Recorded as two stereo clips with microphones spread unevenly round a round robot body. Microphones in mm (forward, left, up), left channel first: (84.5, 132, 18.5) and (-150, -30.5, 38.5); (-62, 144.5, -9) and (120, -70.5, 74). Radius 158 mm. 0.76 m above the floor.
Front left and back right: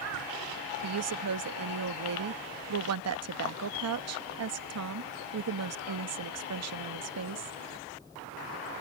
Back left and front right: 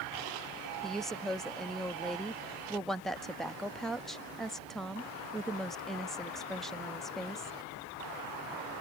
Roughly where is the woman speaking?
Behind right.